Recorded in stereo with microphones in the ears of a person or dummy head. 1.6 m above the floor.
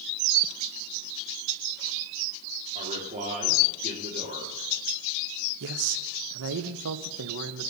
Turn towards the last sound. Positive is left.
turn(degrees=-65)  # may be behind; listen again after turning